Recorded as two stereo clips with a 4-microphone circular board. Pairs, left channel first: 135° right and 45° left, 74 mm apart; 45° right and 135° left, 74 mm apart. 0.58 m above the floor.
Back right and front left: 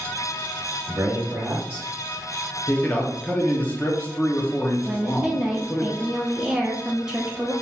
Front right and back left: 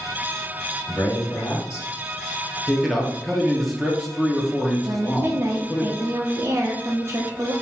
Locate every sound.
0.9 s a man speaking: 5° left, 2.5 m; by 1.9 s 25° right, 2 m
2.7 s a man speaking: 130° right, 0.9 m
4.8 s a woman speaking: 120° left, 0.7 m